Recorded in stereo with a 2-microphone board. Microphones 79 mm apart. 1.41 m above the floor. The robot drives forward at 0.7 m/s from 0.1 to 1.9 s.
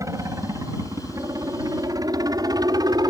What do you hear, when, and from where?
0.0 s a helicopter: 45° right (ahead or behind); by 3.1 s 55° right (ahead or behind)